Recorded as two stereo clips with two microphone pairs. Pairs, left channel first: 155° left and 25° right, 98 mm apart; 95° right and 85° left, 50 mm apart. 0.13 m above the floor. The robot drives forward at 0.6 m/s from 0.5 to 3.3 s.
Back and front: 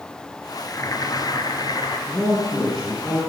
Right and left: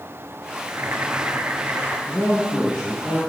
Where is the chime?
No chime in this recording.